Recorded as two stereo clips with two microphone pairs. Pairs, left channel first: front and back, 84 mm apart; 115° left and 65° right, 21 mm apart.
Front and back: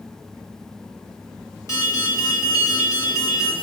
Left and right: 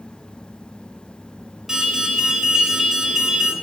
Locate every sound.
1.7 s an alarm: 5° right, 3 m